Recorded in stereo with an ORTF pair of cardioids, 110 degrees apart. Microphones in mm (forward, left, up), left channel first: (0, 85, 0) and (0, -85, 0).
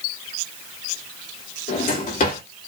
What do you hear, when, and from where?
1.7 s a drawer: 55° left, 2.5 m